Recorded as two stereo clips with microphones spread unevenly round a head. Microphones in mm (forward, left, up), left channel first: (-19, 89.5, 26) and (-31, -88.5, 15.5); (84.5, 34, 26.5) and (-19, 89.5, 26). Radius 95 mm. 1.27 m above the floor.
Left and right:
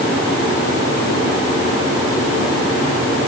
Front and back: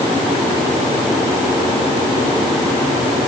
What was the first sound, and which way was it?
Only background noise.